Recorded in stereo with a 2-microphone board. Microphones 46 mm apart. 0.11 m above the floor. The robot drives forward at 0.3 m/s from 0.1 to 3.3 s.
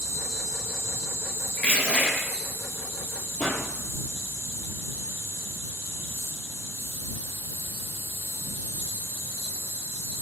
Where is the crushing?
30° left (ahead or behind), 1.1 m.